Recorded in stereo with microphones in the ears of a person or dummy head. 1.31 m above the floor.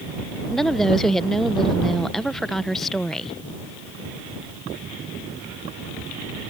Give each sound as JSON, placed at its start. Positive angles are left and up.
{"t": 0.5, "sound": "a woman speaking", "side_deg": 0}